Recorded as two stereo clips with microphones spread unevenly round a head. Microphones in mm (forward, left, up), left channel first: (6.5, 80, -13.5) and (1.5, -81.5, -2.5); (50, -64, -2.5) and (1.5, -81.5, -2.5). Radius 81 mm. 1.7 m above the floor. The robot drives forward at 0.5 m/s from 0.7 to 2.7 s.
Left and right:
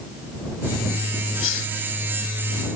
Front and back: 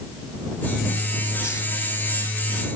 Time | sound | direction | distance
1.4 | a hiss | 85° left | ?